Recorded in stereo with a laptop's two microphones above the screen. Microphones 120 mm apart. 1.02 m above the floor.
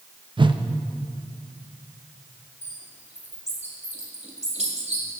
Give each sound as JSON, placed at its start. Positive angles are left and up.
{"t": 0.4, "sound": "a whoosh", "side_deg": -45, "distance_m": 0.5}
{"t": 2.6, "sound": "a bird", "side_deg": -75, "distance_m": 2.0}